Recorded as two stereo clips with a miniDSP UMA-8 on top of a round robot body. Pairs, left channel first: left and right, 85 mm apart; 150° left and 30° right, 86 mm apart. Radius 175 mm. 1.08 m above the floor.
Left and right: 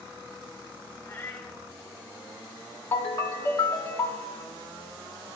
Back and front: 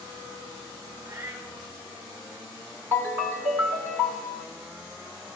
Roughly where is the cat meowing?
Ahead.